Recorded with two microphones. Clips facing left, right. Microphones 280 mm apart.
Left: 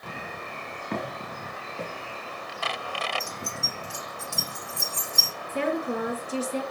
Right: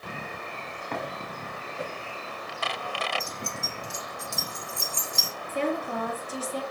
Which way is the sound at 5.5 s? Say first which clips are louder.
Left 2 dB; 70° left (ahead or behind).